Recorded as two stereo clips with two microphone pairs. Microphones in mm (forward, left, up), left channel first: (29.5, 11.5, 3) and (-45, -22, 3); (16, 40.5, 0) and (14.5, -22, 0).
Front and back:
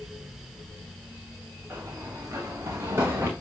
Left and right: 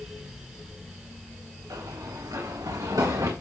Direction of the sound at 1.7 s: 95° right.